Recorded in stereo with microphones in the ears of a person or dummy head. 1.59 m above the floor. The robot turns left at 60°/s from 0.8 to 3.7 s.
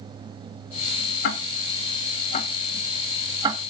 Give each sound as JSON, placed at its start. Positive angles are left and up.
{"t": 1.2, "sound": "ticking", "side_deg": 65, "distance_m": 1.8}